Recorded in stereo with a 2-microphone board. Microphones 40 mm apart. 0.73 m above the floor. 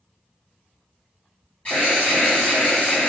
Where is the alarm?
35° left (ahead or behind), 1.9 m.